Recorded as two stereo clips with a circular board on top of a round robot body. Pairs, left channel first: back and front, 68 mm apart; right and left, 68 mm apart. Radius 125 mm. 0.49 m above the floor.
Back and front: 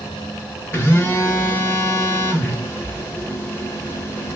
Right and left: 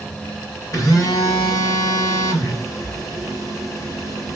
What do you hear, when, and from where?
0.7 s a phone buzzing: 130° right, 1.7 m